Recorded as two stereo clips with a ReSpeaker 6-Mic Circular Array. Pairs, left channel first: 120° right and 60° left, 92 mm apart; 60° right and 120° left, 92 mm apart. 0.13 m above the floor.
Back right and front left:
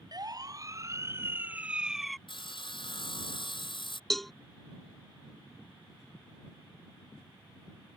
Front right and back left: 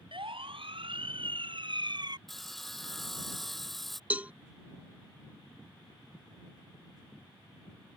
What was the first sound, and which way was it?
A siren, 100° left.